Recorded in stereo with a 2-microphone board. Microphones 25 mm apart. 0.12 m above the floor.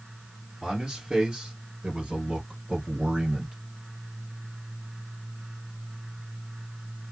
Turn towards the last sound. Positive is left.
turn(degrees=-45)  # may be behind; listen again after turning